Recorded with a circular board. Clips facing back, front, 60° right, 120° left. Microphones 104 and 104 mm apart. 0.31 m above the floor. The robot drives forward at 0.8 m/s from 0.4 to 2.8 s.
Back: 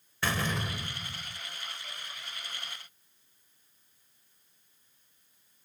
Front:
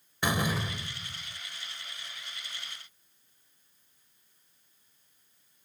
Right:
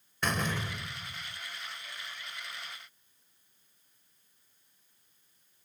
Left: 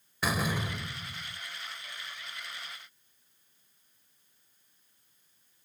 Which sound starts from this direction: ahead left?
A door slam, at 0.2 s.